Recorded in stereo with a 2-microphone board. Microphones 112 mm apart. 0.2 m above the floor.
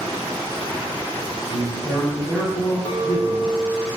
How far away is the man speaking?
About 1.9 m.